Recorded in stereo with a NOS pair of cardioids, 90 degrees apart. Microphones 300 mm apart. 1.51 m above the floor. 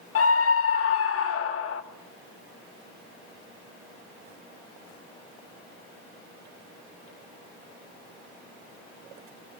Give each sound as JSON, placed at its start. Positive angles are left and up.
{"t": 0.1, "sound": "a scream", "azimuth_deg": 50, "distance_m": 1.7}